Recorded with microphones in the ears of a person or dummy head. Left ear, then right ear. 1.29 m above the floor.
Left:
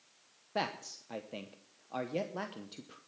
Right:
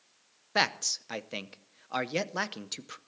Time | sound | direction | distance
0.6 | a man speaking | 50° right (ahead or behind) | 0.8 m